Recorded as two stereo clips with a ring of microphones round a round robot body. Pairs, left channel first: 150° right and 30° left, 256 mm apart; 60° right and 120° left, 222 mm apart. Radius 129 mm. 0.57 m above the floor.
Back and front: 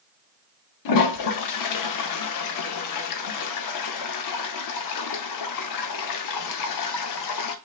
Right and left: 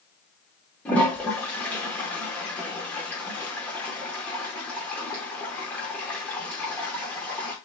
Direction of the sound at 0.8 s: 145° right.